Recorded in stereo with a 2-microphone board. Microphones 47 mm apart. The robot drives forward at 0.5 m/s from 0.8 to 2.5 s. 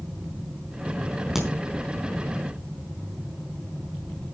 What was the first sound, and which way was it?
A crack, 5° right (ahead or behind).